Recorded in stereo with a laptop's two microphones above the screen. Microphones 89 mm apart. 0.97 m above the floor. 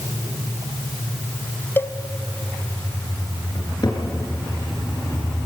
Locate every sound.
1.8 s a cowbell: 25° left (ahead or behind), 0.7 m
3.5 s a cupboard door: 55° left (ahead or behind), 6 m